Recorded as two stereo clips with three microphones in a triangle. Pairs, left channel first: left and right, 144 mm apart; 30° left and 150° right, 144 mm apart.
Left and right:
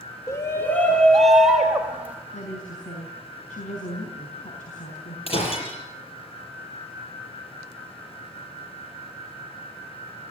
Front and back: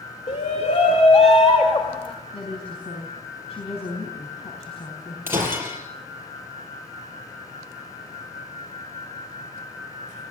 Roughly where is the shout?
Ahead left.